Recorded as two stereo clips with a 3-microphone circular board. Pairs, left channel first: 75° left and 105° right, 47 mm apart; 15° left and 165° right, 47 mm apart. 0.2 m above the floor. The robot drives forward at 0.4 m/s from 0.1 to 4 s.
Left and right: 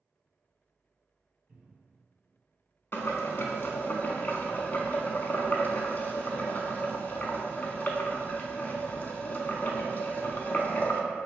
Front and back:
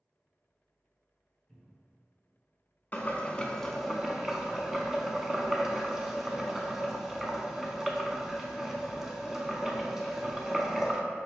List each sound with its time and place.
1.5 s a cupboard door: 75° right, 1.3 m; by 2.0 s 90° right, 1.3 m
2.9 s boiling: 55° left, 0.5 m; by 11.0 s 115° left, 0.5 m